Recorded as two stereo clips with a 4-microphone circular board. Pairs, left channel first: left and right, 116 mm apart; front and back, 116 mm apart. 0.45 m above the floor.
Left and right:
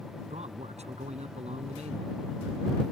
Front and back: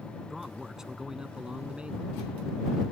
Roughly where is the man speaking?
Right.